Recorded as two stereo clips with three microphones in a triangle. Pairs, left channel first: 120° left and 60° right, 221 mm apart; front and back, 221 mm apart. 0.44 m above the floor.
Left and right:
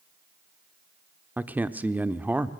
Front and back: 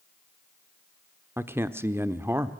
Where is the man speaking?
125° right, 0.7 m.